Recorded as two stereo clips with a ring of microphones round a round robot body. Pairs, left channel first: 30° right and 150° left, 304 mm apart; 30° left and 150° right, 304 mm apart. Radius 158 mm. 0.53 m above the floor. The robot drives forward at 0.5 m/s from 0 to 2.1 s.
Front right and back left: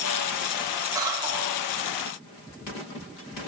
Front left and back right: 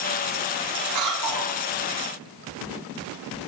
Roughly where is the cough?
Behind right.